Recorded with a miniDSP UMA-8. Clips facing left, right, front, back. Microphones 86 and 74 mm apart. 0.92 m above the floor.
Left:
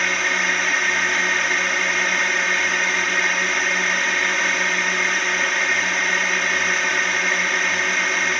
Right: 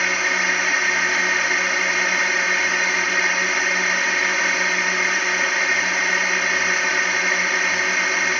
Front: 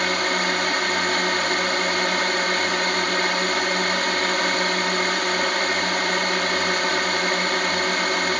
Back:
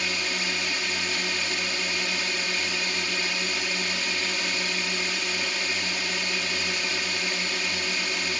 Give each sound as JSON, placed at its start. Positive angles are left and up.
{"t": 0.0, "sound": "a drone", "azimuth_deg": -5}